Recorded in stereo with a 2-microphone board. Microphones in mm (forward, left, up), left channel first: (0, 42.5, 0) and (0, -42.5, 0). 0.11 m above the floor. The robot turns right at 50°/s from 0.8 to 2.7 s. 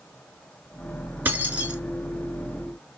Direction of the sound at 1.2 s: 20° right (ahead or behind).